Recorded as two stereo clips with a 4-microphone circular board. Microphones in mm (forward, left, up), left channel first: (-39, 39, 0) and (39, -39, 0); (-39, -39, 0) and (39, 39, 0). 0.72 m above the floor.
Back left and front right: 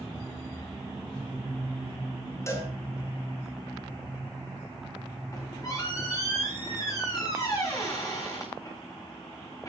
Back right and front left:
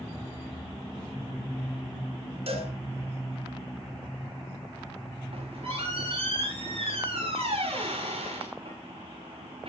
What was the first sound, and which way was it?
A cowbell, 70° left.